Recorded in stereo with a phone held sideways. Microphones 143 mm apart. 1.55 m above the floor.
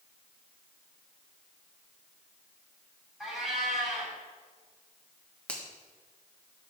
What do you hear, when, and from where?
3.2 s a cat meowing: 5° right (ahead or behind), 4 m
5.5 s a finger snap: 10° left (ahead or behind), 1.3 m